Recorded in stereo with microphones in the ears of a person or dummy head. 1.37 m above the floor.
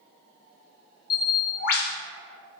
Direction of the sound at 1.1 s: 50° left (ahead or behind).